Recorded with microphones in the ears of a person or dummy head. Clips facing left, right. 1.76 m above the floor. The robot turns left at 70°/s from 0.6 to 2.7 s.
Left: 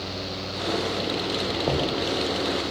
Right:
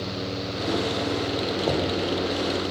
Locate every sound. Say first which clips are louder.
1.6 s knocking: even; 5° left (ahead or behind), 1.1 m; by 1.9 s 5° right (ahead or behind), 1.1 m